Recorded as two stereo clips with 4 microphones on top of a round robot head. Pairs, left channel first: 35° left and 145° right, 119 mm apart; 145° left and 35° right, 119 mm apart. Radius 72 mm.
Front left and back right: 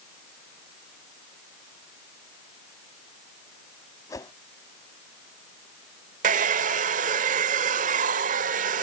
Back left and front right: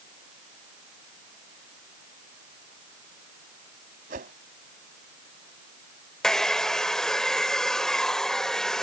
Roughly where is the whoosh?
Ahead right.